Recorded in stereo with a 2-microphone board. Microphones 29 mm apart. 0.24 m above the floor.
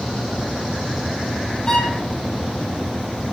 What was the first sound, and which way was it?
A violin, 20° left (ahead or behind).